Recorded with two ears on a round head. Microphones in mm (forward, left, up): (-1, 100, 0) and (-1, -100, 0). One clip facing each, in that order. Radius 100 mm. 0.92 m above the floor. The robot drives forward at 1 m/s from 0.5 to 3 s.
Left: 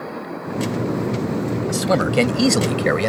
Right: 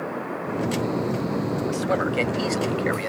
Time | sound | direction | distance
1.7 | a man speaking | 55° left (ahead or behind) | ?